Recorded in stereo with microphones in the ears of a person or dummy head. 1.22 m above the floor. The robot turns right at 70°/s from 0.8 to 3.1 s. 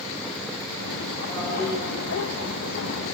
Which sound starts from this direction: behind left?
A toilet flushing, at 1.3 s.